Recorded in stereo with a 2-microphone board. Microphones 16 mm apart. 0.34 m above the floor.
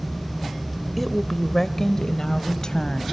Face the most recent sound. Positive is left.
turn(degrees=60)  # may be behind; listen again after turning